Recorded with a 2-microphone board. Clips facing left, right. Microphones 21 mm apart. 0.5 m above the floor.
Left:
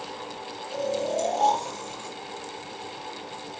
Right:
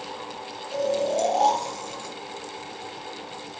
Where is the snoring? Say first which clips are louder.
Right 3 dB; 30° right (ahead or behind), 3 m.